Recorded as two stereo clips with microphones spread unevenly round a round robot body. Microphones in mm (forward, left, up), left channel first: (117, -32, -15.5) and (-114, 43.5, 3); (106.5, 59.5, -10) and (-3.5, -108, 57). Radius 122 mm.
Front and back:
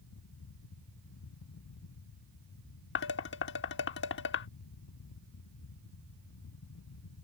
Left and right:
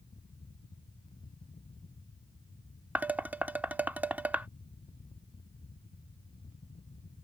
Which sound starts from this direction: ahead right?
Dishes clattering, at 3.0 s.